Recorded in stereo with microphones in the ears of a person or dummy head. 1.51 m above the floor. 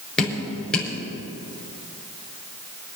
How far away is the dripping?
About 5.5 m.